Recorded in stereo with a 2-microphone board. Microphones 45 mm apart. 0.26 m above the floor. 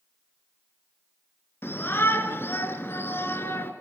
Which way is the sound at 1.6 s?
55° left (ahead or behind).